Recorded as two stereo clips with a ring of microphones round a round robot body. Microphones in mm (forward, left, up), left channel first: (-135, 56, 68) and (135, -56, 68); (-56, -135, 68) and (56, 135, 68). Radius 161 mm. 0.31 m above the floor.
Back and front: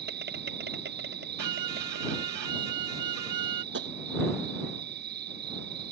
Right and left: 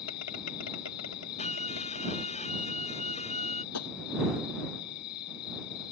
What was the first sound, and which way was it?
An insect, 80° right.